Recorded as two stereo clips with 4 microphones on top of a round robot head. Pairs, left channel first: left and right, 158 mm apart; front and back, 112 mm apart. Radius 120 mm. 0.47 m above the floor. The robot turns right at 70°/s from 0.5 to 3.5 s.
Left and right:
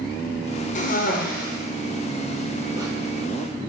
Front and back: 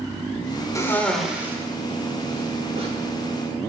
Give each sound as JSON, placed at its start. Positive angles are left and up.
{"t": 0.8, "sound": "a cough", "azimuth_deg": 60, "distance_m": 1.6}